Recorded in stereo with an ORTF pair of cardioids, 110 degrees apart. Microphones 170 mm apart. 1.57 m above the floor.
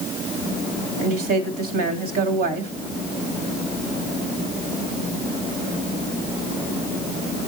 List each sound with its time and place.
1.0 s a woman speaking: 60° right, 3.5 m